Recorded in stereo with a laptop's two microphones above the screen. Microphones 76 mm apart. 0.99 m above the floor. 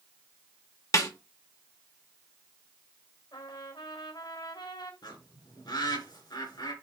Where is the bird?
65° left (ahead or behind), 3 m.